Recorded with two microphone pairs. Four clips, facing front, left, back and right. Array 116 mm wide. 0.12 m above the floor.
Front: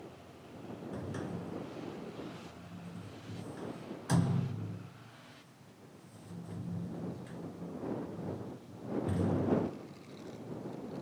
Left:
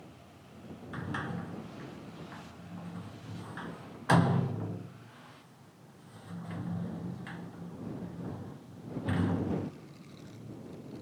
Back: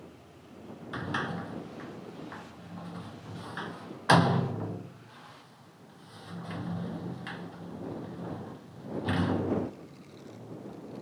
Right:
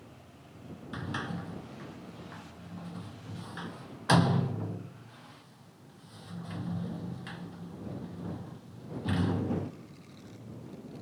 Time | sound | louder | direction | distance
0.9 | a sliding door | right 1 dB, back 8 dB | 175° right | ?